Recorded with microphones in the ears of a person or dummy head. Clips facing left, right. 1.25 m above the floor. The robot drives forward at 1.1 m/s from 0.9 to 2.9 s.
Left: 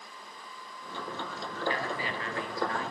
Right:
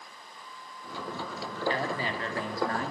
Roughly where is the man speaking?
Right.